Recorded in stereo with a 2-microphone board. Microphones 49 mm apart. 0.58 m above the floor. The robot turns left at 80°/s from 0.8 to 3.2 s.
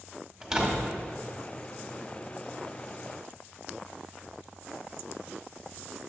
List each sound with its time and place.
0.4 s a door slam: 5° right (ahead or behind), 1.0 m; by 0.9 s centre (ahead or behind), 1.0 m